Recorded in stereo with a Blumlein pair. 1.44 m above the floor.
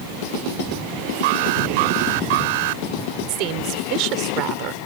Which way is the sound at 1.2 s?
50° right.